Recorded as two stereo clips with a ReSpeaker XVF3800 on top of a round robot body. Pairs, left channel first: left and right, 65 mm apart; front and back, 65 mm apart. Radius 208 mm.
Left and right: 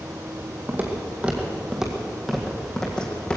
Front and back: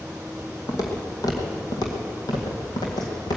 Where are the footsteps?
30° right, 1.8 m; by 3.4 s 20° left, 2 m.